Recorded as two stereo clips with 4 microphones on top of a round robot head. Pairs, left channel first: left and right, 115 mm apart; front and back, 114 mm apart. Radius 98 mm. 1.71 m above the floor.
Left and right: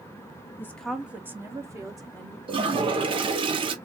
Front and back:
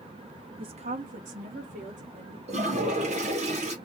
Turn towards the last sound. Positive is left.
turn(degrees=-130)